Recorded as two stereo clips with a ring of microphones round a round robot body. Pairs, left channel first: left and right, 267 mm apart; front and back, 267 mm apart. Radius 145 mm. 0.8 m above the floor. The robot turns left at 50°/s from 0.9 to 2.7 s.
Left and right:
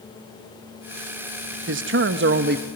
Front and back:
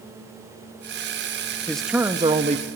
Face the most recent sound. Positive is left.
turn(degrees=-135)